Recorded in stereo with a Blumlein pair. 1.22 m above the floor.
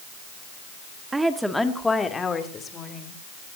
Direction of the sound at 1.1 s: 10° right.